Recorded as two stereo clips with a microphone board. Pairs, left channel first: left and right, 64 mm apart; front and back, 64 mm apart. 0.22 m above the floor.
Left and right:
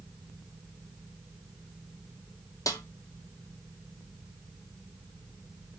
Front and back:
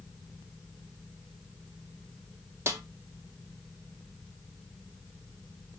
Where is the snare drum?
125° left, 1.5 m.